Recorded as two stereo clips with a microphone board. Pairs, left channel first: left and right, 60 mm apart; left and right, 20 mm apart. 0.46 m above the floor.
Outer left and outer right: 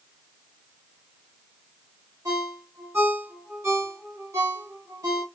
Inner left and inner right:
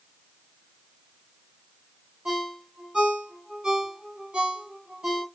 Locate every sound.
2.2 s a ringtone: 55° right (ahead or behind), 1.0 m